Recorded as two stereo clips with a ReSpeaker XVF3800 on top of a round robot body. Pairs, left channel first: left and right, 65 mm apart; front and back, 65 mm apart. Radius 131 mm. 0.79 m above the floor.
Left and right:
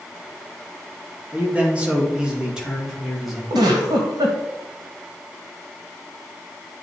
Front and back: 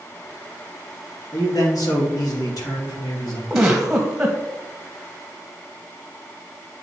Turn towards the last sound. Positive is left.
turn(degrees=-95)